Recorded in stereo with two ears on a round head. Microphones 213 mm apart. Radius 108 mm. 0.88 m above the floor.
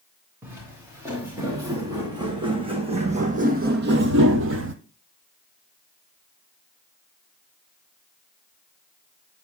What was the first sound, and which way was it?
Footsteps, 10° right (ahead or behind).